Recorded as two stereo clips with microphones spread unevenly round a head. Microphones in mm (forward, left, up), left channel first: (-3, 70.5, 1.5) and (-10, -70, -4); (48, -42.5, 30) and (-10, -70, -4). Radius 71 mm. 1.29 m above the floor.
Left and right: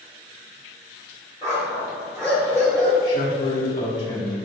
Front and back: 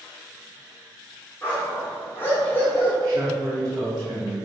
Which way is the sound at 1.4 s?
20° right.